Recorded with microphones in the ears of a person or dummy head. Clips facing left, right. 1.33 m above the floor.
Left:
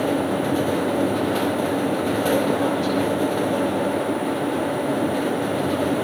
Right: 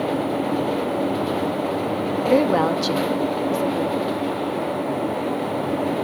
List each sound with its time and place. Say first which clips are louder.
2.2 s a woman speaking: right 5 dB; 75° right (ahead or behind), 2.5 m; by 4.2 s 60° right (ahead or behind), 4 m